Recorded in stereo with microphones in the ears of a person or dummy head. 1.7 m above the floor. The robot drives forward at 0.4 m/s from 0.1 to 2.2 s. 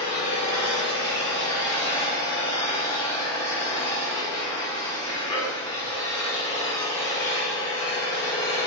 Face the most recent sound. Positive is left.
turn(degrees=20)  # may be behind; listen again after turning